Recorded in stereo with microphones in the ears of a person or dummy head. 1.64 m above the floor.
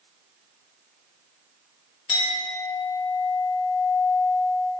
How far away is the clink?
About 1.1 m.